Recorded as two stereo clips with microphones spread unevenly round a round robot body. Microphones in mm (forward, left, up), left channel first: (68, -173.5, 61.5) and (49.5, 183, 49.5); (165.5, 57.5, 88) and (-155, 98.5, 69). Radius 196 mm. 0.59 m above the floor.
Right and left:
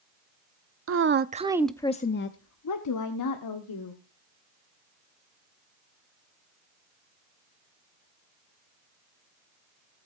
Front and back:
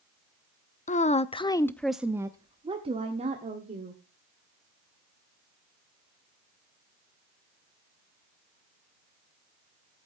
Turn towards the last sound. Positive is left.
turn(degrees=-120)